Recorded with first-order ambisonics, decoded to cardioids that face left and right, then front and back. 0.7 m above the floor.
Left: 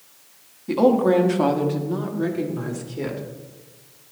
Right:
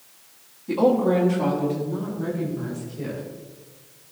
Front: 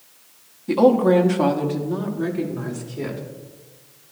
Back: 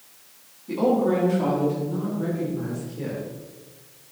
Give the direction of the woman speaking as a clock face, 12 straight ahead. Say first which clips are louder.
Left 2 dB, front 6 dB; 11 o'clock.